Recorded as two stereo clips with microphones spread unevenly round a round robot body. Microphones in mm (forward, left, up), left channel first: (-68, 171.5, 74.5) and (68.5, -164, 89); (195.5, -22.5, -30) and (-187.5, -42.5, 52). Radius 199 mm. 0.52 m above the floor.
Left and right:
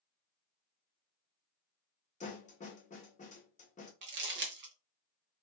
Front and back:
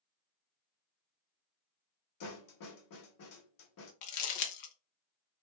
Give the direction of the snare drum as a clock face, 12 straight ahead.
11 o'clock.